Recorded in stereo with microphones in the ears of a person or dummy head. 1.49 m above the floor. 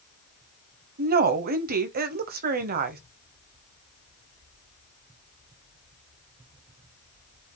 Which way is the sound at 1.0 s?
45° right (ahead or behind).